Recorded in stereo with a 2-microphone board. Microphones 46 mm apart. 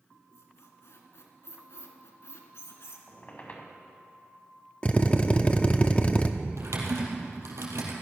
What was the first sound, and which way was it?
A squeak, 85° left.